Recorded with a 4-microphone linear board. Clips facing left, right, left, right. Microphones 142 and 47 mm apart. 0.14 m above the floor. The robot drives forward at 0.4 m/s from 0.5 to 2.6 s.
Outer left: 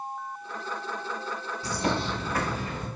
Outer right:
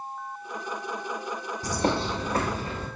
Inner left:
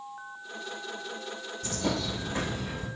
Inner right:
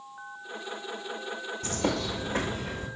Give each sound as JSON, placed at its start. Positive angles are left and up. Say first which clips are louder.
{"t": 1.6, "sound": "a bird", "louder": "outer right 2 dB, inner right 1 dB", "side_deg": -45, "distance_m": 1.1}